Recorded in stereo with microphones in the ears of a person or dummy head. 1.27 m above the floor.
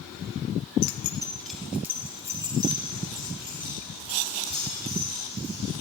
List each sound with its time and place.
0.8 s keys jangling: 60° left (ahead or behind), 0.6 m; by 5.8 s 25° right (ahead or behind), 7 m